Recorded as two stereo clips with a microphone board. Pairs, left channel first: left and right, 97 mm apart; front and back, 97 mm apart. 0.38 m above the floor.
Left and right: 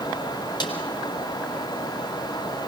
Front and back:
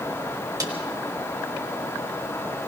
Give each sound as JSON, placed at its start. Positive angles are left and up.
{"t": 0.6, "sound": "a snare drum", "azimuth_deg": 135, "distance_m": 3.5}